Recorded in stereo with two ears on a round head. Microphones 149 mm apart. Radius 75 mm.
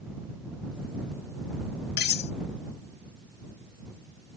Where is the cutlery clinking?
65° left (ahead or behind).